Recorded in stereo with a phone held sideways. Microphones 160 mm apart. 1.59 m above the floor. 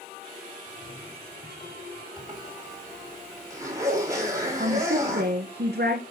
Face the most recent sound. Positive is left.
turn(degrees=-80)